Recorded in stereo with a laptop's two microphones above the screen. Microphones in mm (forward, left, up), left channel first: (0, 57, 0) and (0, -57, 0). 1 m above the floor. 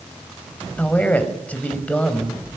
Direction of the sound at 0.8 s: 10° left (ahead or behind).